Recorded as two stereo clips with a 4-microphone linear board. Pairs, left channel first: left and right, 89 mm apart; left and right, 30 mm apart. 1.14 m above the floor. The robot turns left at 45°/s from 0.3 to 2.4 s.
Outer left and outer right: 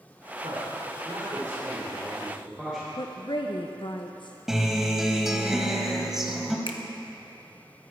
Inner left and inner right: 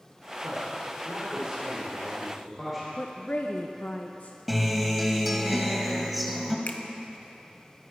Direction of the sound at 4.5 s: 5° right (ahead or behind).